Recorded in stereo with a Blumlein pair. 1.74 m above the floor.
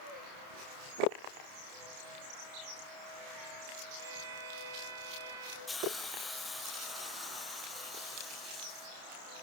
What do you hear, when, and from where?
4.0 s a violin: 60° right, 5 m
5.7 s a hiss: 10° left, 1.6 m